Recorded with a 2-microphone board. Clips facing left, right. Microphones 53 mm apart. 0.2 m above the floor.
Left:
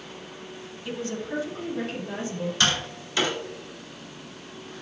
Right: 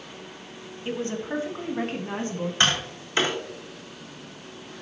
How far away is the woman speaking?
About 1.3 m.